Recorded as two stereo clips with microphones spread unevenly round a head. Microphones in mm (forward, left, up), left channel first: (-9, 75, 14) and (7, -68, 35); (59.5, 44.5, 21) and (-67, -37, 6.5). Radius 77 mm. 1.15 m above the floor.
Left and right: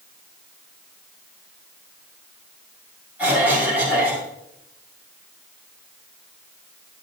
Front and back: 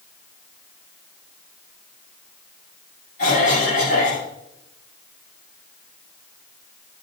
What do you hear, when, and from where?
3.2 s a cough: 5° right, 6.5 m